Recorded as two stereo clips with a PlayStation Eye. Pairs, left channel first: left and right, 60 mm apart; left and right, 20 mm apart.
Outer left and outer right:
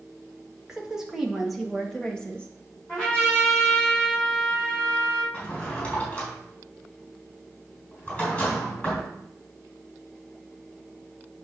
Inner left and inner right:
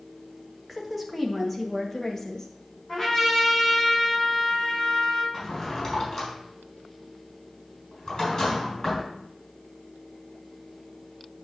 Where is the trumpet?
10° left (ahead or behind), 5 m.